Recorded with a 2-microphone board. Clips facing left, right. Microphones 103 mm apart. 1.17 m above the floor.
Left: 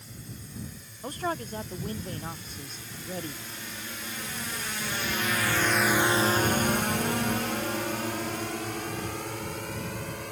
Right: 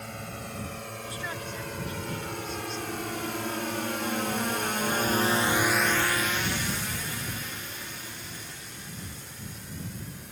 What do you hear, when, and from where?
0.0 s a drone: 80° right; by 10.3 s 85° left
1.0 s a man speaking: 45° left (ahead or behind)